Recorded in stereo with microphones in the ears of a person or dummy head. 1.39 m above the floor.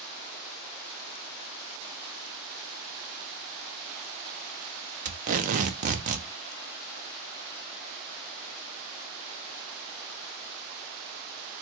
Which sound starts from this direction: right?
Tape being pulled, at 5.0 s.